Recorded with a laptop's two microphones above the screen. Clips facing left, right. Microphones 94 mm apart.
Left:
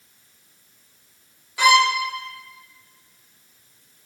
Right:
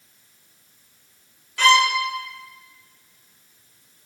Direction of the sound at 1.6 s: 15° left (ahead or behind).